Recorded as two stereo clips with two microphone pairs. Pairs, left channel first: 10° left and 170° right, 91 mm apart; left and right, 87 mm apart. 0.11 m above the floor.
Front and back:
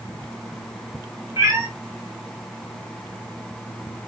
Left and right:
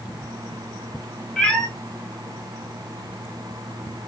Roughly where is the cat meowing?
Behind.